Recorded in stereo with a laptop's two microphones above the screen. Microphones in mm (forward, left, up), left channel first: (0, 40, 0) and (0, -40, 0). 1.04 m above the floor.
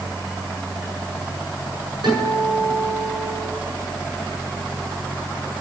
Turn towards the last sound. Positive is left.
turn(degrees=-65)  # may be behind; listen again after turning